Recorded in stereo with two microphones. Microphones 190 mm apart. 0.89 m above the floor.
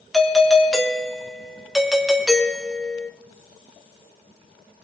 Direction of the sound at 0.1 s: Centre (ahead or behind).